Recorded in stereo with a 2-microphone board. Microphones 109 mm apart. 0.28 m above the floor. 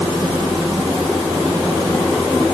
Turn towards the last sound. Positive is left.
No sound to turn to.